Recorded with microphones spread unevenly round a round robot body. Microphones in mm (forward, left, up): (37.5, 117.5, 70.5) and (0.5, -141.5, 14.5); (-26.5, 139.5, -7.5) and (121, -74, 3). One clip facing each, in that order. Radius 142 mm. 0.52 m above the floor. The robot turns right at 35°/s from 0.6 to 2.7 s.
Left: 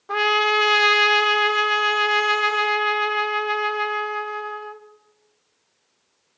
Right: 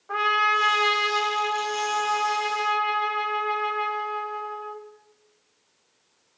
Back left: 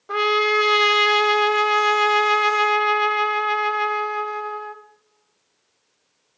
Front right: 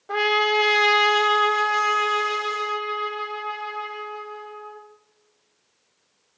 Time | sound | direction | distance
0.1 | a trumpet | 45° left | 1.3 m